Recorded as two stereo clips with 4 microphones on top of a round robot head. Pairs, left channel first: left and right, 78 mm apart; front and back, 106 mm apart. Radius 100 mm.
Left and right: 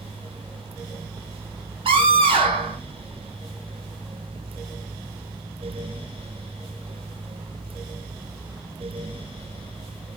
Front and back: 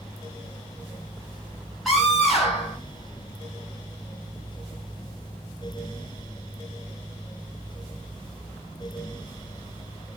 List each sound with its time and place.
1.9 s a scream: 90° right, 8 m